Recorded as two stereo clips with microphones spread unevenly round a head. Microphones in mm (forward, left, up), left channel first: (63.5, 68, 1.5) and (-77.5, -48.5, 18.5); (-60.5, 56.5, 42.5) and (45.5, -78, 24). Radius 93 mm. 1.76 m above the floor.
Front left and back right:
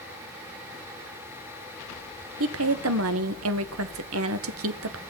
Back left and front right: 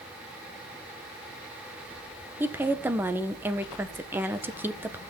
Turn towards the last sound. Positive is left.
turn(degrees=-130)